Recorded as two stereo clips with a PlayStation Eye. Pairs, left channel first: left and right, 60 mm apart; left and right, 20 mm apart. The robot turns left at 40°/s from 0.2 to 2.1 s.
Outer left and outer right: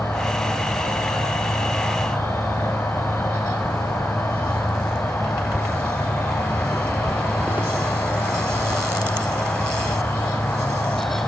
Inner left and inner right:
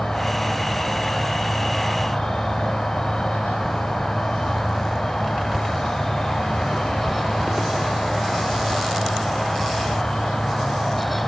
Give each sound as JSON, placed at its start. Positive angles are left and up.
{"t": 0.0, "sound": "an insect", "azimuth_deg": 140, "distance_m": 1.1}